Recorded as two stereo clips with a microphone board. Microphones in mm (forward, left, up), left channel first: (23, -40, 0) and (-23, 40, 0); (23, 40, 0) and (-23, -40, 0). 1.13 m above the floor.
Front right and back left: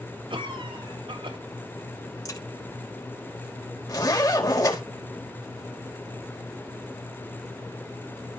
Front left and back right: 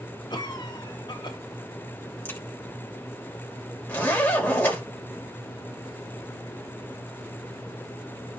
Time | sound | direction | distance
0.3 | a cough | 95° left | 3 m
2.2 | a crack | 10° right | 4 m
3.9 | a zipper | 10° right | 4 m